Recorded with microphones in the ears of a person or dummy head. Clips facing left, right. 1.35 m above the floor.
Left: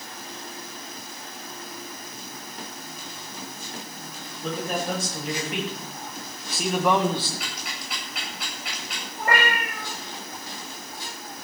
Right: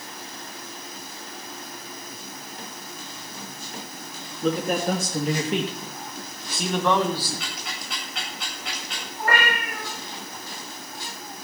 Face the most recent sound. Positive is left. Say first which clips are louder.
# even
turn(degrees=20)  # may be behind; listen again after turning